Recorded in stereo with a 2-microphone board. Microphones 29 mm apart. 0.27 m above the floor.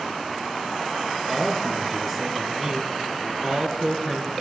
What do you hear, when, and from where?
1.3 s a man speaking: centre (ahead or behind), 3.5 m